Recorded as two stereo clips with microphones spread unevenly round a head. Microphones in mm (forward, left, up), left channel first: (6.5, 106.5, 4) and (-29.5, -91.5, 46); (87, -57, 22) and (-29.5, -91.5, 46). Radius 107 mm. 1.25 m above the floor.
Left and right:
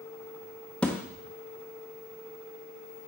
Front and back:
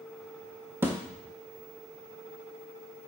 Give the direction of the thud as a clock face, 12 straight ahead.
6 o'clock.